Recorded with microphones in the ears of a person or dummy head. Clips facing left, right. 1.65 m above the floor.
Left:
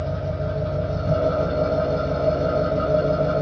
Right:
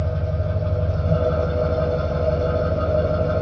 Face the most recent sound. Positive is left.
turn(degrees=10)  # may be behind; listen again after turning